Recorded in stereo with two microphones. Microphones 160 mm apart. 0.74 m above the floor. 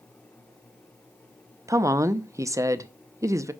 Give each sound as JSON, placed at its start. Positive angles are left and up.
{"t": 1.7, "sound": "a woman speaking", "side_deg": -20, "distance_m": 0.6}